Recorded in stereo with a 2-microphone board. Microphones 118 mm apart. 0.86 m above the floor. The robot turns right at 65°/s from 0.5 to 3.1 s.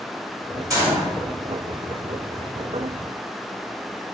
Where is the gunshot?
30° right (ahead or behind), 1.3 m; by 1.1 s 5° right (ahead or behind), 1.3 m.